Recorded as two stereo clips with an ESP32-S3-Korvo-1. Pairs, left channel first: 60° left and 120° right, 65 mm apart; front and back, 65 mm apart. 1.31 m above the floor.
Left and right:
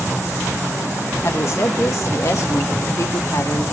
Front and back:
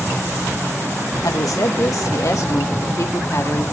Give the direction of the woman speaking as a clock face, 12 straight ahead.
11 o'clock.